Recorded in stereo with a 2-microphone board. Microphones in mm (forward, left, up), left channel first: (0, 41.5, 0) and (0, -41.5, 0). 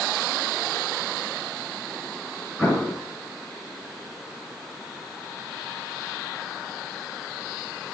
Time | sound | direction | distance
2.6 | an explosion | centre (ahead or behind) | 3 m